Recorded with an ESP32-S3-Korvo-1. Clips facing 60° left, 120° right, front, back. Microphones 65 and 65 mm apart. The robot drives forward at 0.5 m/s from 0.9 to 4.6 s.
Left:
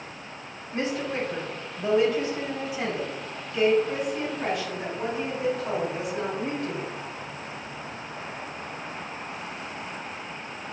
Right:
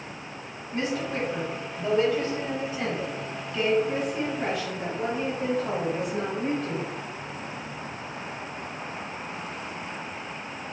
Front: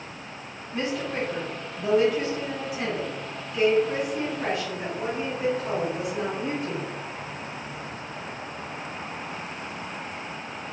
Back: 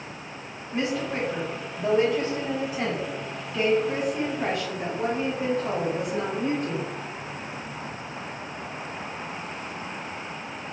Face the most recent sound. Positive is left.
turn(degrees=150)